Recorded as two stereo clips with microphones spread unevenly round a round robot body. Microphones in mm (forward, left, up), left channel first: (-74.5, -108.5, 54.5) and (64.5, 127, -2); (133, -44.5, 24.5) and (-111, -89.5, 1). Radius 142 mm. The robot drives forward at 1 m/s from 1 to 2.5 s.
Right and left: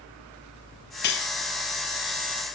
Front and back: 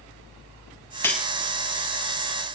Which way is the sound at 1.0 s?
70° right.